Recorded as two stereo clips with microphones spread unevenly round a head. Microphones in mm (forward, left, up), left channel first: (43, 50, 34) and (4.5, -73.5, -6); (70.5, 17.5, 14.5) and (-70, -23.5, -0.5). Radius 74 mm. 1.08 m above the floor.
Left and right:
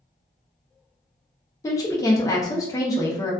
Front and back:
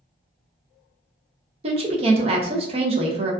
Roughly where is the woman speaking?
Behind left.